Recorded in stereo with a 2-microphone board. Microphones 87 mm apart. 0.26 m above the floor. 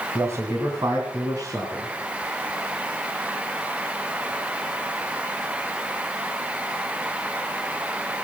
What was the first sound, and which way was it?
A man speaking, 30° right (ahead or behind).